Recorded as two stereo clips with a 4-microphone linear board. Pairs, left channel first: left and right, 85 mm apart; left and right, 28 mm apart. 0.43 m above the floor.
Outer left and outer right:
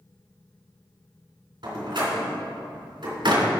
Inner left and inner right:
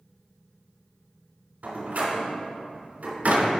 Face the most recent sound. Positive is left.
turn(degrees=-70)  # may be behind; listen again after turning